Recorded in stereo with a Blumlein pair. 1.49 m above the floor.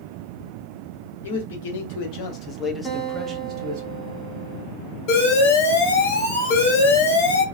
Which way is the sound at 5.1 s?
50° left.